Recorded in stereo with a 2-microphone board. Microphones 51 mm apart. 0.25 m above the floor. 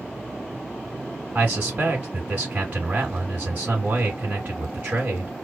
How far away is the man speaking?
About 1.4 m.